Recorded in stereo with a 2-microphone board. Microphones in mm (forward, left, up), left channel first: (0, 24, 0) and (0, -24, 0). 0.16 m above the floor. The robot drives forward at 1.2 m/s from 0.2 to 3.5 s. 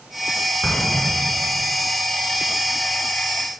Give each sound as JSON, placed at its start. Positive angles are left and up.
{"t": 0.6, "sound": "an explosion", "side_deg": 35, "distance_m": 1.3}